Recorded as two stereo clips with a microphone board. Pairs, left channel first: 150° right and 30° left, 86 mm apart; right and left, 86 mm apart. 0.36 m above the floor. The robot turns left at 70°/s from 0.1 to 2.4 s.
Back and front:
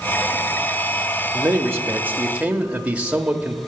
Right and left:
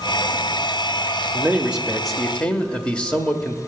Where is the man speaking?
50° left, 1.1 m; by 3.6 s 25° right, 1.1 m.